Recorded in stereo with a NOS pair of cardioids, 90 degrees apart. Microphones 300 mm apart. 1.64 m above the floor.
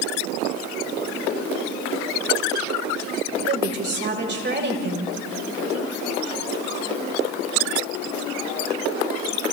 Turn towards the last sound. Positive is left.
turn(degrees=-40)